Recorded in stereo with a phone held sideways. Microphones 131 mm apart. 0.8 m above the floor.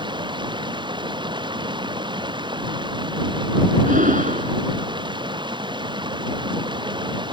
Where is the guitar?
I don't hear a guitar.